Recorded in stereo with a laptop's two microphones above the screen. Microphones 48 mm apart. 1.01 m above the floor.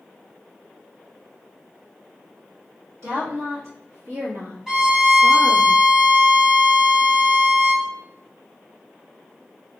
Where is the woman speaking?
70° right (ahead or behind), 1.4 m; by 5.7 s 45° right (ahead or behind), 1.1 m.